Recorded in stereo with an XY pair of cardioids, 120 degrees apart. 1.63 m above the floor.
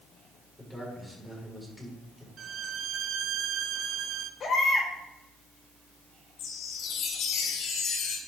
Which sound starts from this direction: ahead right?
A violin, at 2.4 s.